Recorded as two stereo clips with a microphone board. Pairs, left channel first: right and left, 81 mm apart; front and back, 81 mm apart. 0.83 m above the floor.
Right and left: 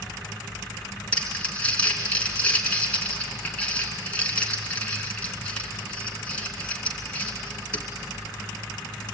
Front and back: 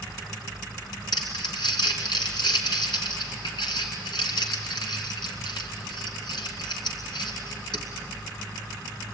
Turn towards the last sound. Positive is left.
turn(degrees=-15)